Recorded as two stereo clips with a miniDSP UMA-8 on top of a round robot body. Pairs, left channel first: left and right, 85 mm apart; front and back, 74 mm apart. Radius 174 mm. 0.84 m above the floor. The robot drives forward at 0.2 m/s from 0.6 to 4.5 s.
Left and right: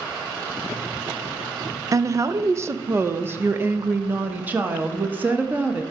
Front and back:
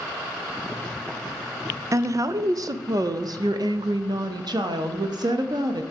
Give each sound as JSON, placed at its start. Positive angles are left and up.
{"t": 1.9, "sound": "a woman speaking", "azimuth_deg": -135, "distance_m": 0.6}